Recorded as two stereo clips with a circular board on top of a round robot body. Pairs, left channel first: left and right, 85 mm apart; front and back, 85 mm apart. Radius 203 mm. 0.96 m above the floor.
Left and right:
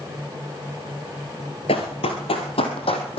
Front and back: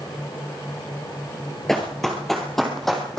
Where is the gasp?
No gasp in this recording.